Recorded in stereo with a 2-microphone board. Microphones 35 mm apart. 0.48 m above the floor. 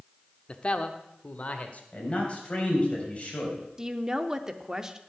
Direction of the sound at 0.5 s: 30° left (ahead or behind).